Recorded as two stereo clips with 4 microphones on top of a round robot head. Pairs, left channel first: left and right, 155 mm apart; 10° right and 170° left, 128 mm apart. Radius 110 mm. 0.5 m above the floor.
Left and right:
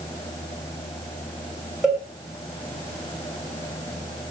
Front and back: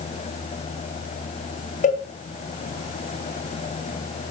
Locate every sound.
1.8 s a cowbell: 5° right, 3 m